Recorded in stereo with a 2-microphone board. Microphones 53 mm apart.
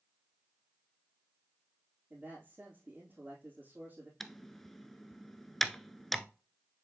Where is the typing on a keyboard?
5° left (ahead or behind), 0.6 m.